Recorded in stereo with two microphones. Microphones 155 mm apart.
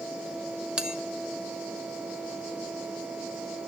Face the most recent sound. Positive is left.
turn(degrees=-5)  # may be behind; listen again after turning